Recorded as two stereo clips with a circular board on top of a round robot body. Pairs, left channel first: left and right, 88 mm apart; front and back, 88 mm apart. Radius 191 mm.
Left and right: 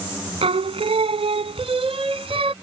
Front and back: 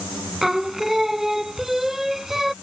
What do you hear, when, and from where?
0.4 s singing: 95° right